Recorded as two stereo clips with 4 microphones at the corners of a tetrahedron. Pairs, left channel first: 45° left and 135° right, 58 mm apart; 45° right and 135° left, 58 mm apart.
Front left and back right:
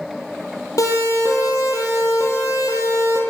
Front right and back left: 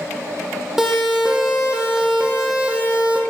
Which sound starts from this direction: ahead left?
A siren, at 0.8 s.